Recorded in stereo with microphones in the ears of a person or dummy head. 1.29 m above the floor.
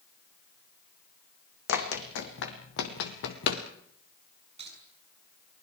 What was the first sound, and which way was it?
Running footsteps, 70° left (ahead or behind).